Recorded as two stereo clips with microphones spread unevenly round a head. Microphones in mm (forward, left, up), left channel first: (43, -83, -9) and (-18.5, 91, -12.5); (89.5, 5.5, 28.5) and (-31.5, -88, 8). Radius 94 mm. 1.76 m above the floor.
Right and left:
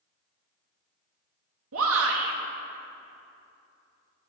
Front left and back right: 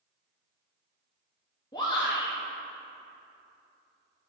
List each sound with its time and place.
1.7 s a shout: 105° left, 1.1 m